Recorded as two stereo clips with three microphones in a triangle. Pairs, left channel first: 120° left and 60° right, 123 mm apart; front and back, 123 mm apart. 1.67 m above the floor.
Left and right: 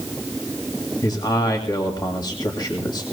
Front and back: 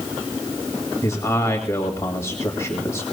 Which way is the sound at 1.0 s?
65° left.